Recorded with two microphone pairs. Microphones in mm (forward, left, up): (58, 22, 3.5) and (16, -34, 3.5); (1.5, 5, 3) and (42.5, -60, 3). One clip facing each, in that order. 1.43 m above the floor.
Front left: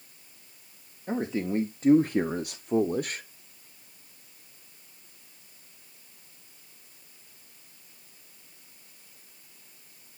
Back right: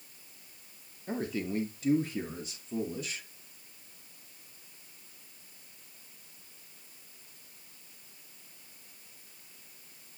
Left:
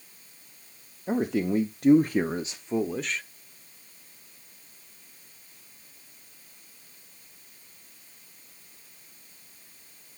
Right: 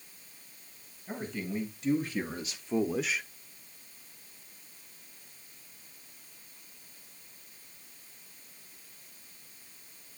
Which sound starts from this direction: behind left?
A man speaking, at 1.1 s.